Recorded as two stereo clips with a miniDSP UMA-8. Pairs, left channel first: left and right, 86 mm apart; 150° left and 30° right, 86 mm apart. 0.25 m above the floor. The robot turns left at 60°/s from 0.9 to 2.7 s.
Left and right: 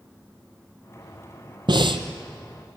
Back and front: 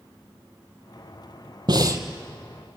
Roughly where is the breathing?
Ahead right.